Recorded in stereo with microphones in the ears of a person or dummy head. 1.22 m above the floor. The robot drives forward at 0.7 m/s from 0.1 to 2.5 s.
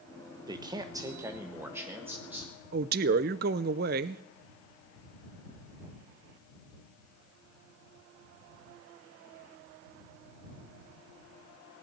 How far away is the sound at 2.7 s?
About 0.5 m.